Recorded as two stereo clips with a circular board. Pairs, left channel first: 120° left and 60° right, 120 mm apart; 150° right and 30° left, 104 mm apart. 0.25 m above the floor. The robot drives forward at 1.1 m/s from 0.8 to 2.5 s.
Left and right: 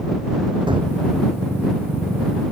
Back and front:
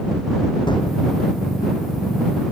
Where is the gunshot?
105° right; by 0.9 s 110° right.